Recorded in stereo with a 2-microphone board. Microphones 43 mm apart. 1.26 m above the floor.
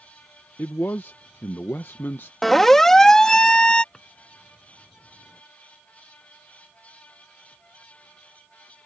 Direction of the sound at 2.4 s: 5° left (ahead or behind).